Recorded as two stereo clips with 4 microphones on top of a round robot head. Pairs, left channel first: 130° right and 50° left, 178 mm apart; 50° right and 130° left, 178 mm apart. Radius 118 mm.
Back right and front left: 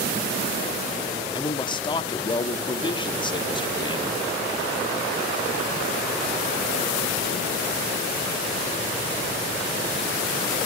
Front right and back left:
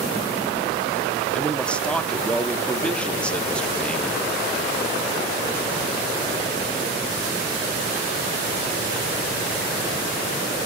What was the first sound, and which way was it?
A man speaking, 130° right.